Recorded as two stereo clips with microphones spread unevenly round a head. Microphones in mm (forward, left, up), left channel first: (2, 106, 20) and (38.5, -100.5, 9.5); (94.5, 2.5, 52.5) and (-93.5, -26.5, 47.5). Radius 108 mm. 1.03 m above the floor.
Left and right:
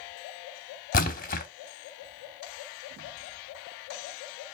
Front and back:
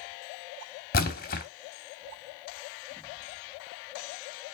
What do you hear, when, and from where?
0.9 s a splash: 50° left, 1.1 m